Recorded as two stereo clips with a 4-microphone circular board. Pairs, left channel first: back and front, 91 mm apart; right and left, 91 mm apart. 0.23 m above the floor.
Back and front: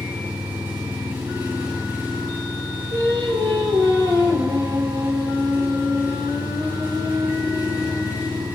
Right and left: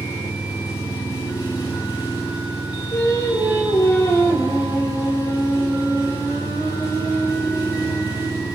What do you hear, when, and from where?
0.0 s an engine running: 55° right, 7.5 m
2.9 s singing: 35° right, 4.5 m